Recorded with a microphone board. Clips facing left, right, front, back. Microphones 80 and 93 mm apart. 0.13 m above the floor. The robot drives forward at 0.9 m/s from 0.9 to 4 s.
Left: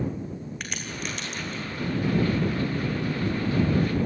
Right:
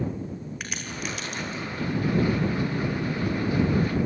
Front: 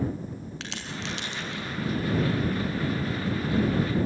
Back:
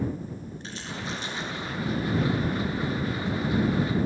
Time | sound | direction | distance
0.6 | a crack | 5° right | 6.5 m